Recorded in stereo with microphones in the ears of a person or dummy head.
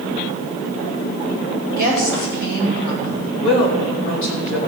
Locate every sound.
1.7 s a woman speaking: 60° left (ahead or behind), 6.5 m
3.4 s a woman speaking: 75° left (ahead or behind), 4 m